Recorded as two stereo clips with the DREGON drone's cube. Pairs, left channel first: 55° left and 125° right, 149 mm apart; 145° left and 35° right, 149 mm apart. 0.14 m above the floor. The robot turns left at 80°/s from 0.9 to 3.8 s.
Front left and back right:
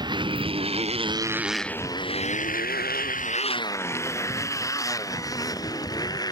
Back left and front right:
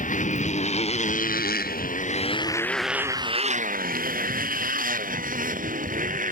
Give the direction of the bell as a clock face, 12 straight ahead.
I don't hear a bell.